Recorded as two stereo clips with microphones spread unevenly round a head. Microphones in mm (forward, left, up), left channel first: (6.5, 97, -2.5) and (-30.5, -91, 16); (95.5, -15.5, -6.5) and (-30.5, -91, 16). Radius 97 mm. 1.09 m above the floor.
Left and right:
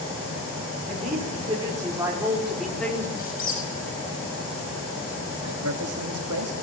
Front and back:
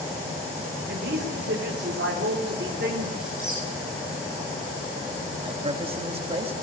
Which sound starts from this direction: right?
A man speaking, at 5.4 s.